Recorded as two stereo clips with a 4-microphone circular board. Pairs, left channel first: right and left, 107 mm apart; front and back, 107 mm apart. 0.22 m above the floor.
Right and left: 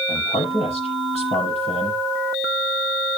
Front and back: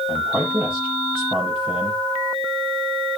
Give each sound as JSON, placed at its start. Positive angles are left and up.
{"t": 0.1, "sound": "a man speaking", "azimuth_deg": -95, "distance_m": 9.0}